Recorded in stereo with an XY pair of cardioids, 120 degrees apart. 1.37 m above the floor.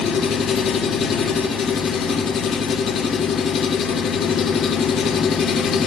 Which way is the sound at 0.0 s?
65° left.